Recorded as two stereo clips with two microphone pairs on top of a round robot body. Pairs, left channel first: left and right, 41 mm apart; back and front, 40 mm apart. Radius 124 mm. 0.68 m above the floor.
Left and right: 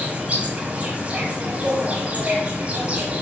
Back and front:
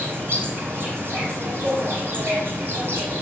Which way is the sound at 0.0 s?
30° right.